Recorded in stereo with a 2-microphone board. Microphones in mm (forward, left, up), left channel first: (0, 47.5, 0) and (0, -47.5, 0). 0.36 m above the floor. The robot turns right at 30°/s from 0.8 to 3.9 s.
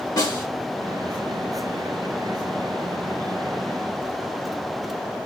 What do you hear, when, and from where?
0.2 s a snare drum: 40° left (ahead or behind), 3 m